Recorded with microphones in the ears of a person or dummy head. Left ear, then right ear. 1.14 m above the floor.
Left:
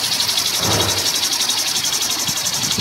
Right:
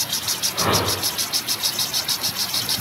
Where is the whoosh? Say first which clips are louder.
Left 3 dB; 85° right, 4 m.